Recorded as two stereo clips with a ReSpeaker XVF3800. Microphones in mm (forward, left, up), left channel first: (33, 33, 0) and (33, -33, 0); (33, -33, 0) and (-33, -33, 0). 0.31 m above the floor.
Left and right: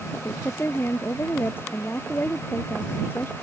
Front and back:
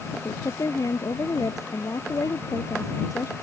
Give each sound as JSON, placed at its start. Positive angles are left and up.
{"t": 0.1, "sound": "a woman speaking", "azimuth_deg": 35}